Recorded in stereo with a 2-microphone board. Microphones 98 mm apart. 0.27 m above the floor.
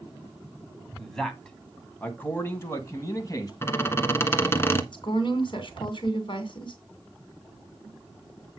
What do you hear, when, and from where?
1.0 s a man speaking: 5° left (ahead or behind), 2.5 m; by 3.5 s 35° left (ahead or behind), 2.5 m
3.6 s a squeak: 25° left (ahead or behind), 1.4 m
4.9 s a woman speaking: 55° left (ahead or behind), 2.5 m